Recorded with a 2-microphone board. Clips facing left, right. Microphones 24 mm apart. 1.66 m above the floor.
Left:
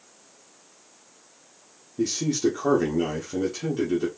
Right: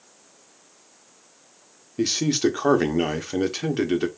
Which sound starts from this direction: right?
A man speaking, at 2.0 s.